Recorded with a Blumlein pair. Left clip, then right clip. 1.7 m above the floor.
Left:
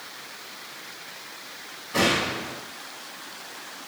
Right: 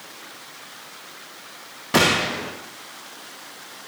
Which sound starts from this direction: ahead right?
A gunshot, at 1.9 s.